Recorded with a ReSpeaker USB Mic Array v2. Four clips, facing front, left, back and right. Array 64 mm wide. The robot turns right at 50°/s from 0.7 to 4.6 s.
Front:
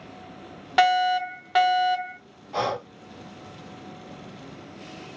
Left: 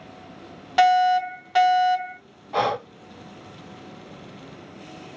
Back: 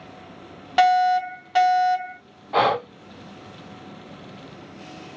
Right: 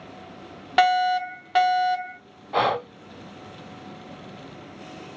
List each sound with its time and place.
0.8 s a fire alarm: 90° right, 2.0 m; by 2.2 s 20° right, 2.0 m
2.5 s breathing: 165° right, 0.5 m; by 2.9 s 150° right, 0.5 m